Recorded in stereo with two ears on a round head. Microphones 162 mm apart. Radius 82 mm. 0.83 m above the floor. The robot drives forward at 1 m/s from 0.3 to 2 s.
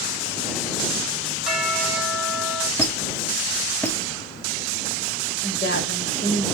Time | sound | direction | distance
1.4 | a bell | 5° right (ahead or behind) | 4 m
2.8 | a squeak | 10° left (ahead or behind) | 2 m
5.4 | a woman speaking | 65° left (ahead or behind) | 3.5 m